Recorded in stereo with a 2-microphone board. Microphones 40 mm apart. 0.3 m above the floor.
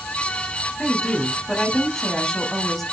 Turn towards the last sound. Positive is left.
turn(degrees=5)  # may be behind; listen again after turning